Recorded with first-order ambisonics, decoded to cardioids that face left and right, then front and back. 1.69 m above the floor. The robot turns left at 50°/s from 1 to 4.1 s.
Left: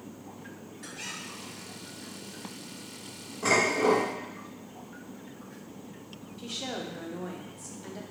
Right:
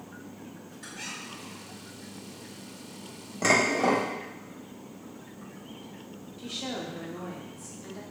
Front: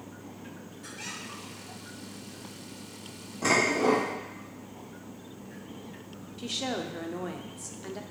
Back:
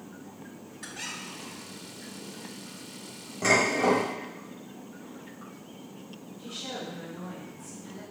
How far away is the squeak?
About 1.3 m.